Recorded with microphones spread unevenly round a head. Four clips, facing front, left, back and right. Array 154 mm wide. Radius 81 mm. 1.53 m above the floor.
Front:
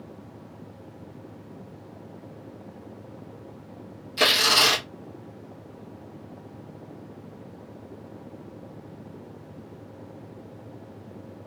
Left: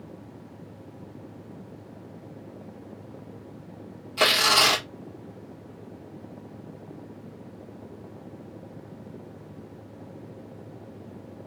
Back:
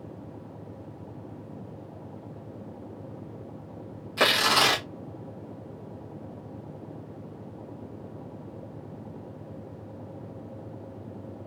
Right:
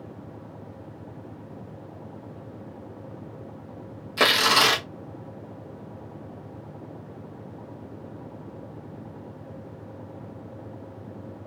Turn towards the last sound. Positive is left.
turn(degrees=-105)